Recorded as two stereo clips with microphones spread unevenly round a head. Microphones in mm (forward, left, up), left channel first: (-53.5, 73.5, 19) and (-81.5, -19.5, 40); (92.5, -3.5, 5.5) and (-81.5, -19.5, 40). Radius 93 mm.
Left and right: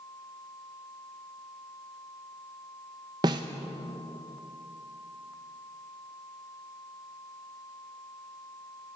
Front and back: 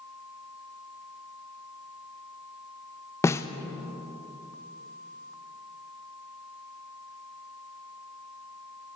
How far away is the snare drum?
About 0.7 m.